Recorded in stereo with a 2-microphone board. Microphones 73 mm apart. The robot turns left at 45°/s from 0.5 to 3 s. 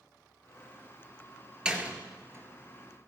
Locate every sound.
1.6 s a door slam: 10° right (ahead or behind), 1.6 m; by 3.1 s 45° right (ahead or behind), 1.6 m